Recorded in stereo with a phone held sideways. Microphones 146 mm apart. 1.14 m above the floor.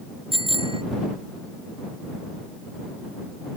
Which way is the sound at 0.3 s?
35° right (ahead or behind).